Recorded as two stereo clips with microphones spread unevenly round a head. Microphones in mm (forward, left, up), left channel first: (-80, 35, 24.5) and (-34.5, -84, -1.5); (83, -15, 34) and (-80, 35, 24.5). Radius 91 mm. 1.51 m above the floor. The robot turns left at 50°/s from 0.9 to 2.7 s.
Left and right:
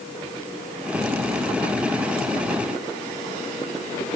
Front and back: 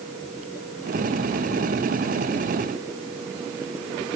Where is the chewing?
No chewing in this recording.